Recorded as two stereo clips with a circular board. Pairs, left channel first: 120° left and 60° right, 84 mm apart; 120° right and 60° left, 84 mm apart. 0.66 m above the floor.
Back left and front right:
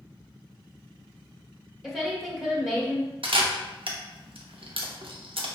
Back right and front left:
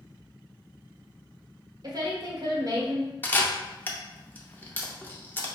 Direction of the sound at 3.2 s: 50° right.